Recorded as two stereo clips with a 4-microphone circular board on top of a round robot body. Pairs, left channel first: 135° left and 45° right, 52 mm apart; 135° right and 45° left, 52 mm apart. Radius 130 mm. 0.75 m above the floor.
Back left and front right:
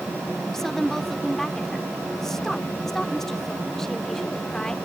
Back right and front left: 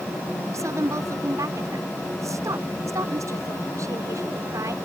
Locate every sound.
0.5 s a woman speaking: 55° left